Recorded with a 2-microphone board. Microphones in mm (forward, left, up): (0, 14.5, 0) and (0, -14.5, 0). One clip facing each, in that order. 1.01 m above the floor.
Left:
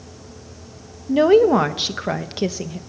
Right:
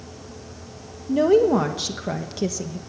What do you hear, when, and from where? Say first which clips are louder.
1.1 s a woman speaking: left 3 dB; 40° left (ahead or behind), 1.2 m